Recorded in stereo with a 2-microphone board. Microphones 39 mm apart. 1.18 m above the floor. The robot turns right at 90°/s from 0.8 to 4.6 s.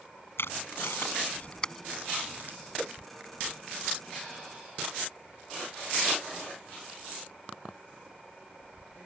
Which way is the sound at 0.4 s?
85° left.